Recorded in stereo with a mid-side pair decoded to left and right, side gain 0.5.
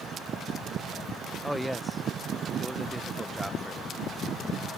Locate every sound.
1.4 s a man speaking: straight ahead